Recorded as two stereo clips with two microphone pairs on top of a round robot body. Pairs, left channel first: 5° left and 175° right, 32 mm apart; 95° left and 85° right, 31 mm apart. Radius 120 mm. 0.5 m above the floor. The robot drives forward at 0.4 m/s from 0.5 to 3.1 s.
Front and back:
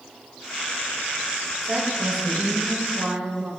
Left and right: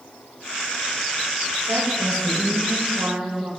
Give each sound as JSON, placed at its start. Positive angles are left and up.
{"t": 1.6, "sound": "a woman speaking", "azimuth_deg": -100, "distance_m": 4.0}